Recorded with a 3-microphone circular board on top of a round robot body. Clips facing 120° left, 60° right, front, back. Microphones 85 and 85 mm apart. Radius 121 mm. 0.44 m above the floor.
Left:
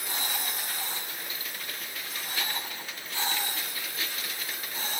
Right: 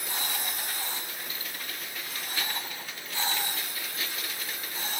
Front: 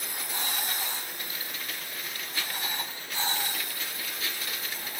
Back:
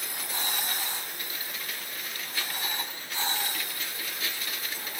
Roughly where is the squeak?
No squeak in this recording.